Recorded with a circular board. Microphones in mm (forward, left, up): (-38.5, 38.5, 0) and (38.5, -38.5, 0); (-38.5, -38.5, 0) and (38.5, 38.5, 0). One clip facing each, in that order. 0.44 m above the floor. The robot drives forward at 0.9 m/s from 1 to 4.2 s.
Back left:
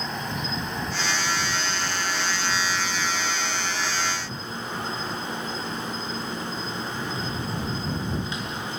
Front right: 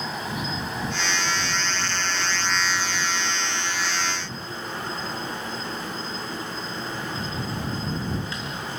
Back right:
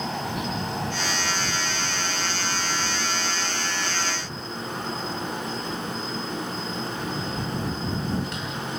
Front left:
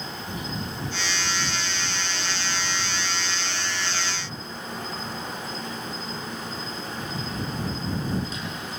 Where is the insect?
130° right, 2.5 m; by 8.8 s 155° right, 5 m.